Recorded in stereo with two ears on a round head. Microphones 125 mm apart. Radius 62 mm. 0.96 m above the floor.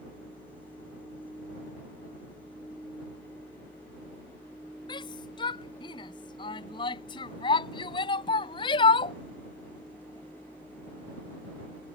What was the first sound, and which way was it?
A shout, 35° left (ahead or behind).